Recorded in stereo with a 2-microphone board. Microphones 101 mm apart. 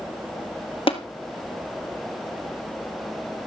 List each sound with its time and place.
0.9 s tapping: 65° left (ahead or behind), 1.5 m